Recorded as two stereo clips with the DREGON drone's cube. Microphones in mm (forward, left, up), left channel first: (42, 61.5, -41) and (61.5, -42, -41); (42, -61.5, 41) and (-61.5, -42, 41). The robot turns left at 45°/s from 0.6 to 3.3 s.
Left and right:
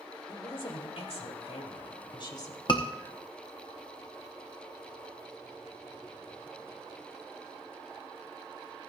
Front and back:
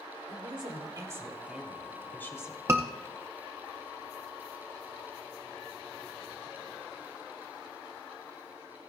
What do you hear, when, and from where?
0.3 s a woman speaking: 135° left, 2.5 m; by 2.6 s 45° left, 2.5 m
2.7 s a scream: 115° left, 0.6 m; by 2.9 s 105° left, 0.6 m